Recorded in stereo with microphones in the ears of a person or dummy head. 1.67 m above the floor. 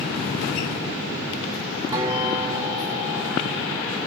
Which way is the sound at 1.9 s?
15° right (ahead or behind).